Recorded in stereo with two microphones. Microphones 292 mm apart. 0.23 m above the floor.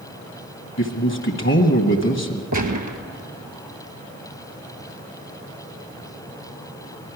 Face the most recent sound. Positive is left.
turn(degrees=-75)  # may be behind; listen again after turning